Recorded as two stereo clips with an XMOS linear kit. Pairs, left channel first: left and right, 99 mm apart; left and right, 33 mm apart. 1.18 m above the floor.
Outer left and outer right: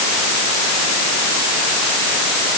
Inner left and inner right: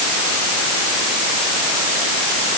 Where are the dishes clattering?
I don't hear dishes clattering.